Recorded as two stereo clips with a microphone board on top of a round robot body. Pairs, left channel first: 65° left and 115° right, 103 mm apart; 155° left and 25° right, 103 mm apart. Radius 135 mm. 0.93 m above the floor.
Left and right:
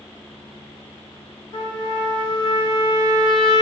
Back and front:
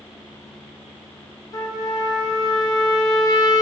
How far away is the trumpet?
About 1.2 m.